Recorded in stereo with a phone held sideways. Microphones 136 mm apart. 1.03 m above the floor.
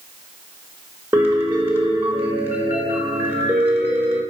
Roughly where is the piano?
Centre.